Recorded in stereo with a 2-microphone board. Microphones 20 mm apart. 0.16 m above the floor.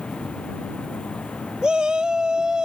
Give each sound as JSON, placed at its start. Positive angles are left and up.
{"t": 0.0, "sound": "an insect", "side_deg": 85}
{"t": 1.6, "sound": "a shout", "side_deg": -50}